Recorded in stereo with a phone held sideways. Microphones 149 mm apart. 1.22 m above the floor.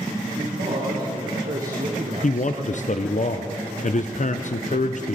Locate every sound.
0.3 s a man speaking: 80° right, 3 m; by 3.2 s 20° left (ahead or behind), 0.9 m
2.2 s a man speaking: 55° left (ahead or behind), 0.5 m